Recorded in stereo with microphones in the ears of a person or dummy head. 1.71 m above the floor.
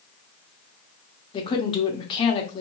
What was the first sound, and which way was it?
A woman speaking, 25° left (ahead or behind).